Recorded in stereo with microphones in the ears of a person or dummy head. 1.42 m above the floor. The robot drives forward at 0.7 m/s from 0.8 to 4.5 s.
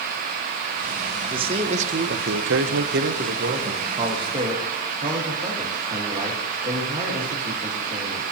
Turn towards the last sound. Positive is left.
turn(degrees=-20)  # may be behind; listen again after turning